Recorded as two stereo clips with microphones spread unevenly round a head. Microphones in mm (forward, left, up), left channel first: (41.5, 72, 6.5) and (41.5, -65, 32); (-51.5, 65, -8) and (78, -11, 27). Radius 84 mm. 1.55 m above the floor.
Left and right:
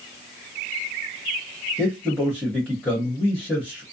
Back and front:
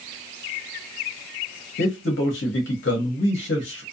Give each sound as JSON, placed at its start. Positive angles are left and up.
{"t": 1.8, "sound": "a man speaking", "azimuth_deg": 180, "distance_m": 0.9}